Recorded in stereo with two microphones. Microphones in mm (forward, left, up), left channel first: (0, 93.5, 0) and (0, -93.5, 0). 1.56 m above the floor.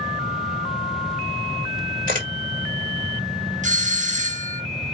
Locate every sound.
2.1 s a camera shutter: 50° right (ahead or behind), 1.7 m
3.6 s a doorbell: 40° right (ahead or behind), 0.6 m